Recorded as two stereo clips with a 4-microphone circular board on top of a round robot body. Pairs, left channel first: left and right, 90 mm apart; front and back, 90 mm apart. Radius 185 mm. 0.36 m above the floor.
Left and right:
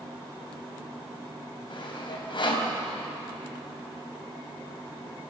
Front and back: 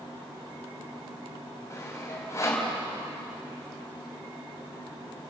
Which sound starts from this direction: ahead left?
Sawing, at 1.7 s.